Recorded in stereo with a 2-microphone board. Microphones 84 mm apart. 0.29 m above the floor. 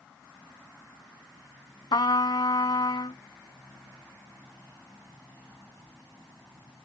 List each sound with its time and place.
1.9 s a trumpet: 70° left (ahead or behind)